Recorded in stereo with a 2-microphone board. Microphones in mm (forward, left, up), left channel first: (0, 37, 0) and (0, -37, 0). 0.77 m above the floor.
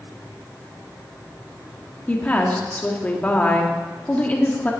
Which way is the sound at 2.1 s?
20° left (ahead or behind).